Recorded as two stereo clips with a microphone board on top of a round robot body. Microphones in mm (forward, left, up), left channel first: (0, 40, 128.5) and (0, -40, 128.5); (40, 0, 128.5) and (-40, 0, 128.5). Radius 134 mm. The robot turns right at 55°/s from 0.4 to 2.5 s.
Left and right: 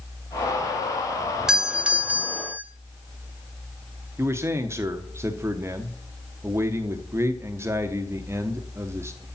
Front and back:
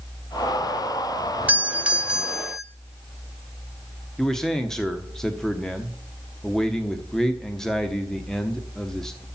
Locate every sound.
1.5 s a doorbell: 155° right, 1.2 m; by 2.6 s 100° right, 1.2 m
4.2 s a man speaking: 80° right, 1.2 m